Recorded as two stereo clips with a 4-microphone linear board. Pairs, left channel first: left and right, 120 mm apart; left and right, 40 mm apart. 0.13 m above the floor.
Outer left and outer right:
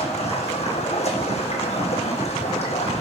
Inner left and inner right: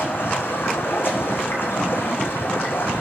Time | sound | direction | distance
0.0 | running water | 60° left (ahead or behind) | 1.5 m